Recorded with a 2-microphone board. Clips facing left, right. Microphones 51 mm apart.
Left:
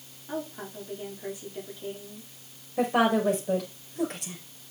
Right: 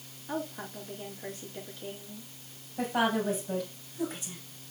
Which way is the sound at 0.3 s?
5° left (ahead or behind).